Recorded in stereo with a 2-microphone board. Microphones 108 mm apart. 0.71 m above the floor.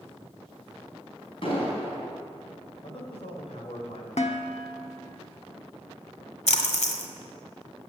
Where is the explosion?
50° left (ahead or behind), 4.5 m.